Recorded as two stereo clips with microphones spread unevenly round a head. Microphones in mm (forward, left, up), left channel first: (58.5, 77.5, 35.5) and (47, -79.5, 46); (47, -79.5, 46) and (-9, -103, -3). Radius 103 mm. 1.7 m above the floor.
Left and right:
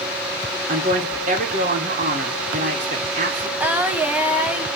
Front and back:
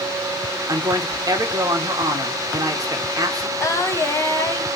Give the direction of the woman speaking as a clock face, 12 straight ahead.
5 o'clock.